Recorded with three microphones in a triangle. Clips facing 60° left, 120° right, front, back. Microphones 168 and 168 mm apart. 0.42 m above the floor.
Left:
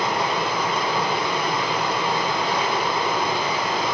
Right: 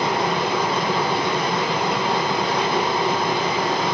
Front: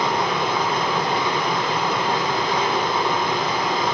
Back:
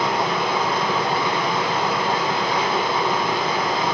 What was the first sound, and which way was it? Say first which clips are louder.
Running water: right 2 dB, even; 95° right.